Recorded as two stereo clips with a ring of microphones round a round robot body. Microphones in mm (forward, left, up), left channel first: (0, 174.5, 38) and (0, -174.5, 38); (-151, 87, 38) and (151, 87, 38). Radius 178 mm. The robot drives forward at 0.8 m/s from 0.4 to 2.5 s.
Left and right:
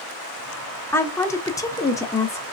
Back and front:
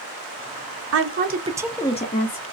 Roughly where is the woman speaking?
Ahead.